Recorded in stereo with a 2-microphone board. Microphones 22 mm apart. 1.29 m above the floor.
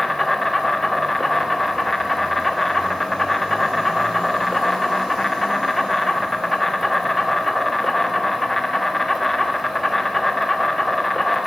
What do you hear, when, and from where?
0.0 s an insect: 10° left (ahead or behind), 0.8 m